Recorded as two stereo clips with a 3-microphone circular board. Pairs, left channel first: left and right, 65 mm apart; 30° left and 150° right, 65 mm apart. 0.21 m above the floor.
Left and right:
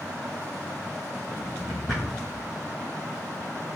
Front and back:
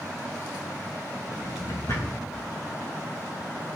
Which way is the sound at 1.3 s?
Straight ahead.